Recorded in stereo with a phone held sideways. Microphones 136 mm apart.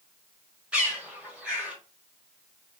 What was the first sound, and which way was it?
A bird, 5° right (ahead or behind).